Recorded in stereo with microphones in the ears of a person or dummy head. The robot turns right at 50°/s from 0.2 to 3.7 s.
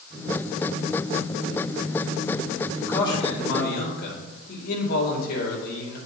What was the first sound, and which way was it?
A man speaking, 10° left.